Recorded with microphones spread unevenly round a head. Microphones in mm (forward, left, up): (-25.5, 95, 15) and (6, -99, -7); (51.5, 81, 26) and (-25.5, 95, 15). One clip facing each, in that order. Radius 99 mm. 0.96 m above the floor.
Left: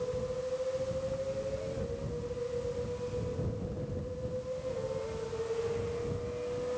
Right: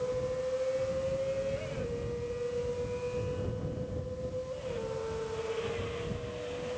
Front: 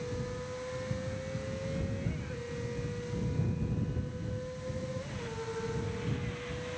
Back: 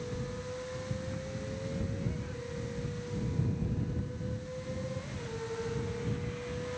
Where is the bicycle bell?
No bicycle bell in this recording.